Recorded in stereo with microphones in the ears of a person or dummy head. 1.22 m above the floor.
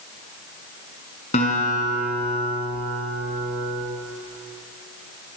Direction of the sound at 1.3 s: 35° left (ahead or behind).